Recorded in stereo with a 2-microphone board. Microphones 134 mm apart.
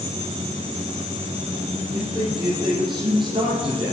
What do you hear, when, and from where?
1.9 s a man speaking: 25° right (ahead or behind), 3.5 m; by 3.9 s 45° right (ahead or behind), 4 m